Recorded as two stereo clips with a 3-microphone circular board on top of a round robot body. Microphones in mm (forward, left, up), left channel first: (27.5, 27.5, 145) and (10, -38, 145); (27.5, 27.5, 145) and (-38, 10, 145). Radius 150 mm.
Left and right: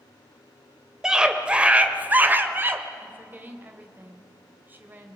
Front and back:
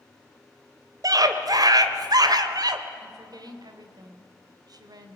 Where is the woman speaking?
165° right, 3 m.